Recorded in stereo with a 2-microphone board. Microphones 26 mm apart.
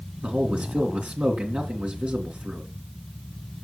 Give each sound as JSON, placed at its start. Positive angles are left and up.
{"t": 0.2, "sound": "a man speaking", "side_deg": -55, "distance_m": 3.0}